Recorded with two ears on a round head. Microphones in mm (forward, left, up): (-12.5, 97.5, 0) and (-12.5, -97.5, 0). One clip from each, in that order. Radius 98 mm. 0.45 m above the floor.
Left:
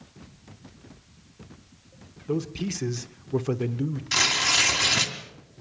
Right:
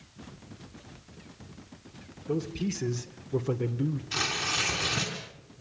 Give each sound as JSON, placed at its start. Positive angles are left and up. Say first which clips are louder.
{"t": 2.3, "sound": "a man speaking", "louder": "left 2 dB", "side_deg": 20, "distance_m": 1.0}
{"t": 4.1, "sound": "tearing paper", "louder": "left 8 dB", "side_deg": 60, "distance_m": 3.0}